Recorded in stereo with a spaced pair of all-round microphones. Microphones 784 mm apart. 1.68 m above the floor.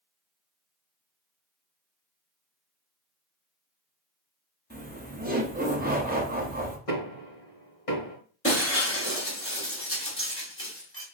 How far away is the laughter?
About 0.8 m.